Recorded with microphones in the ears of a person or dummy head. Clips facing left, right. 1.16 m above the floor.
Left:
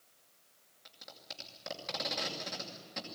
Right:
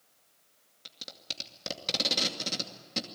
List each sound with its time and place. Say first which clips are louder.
0.8 s tape being pulled: right 4 dB; 45° right (ahead or behind), 2.5 m